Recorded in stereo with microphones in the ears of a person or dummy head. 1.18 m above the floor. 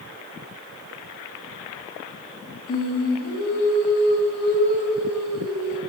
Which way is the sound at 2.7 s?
75° left (ahead or behind).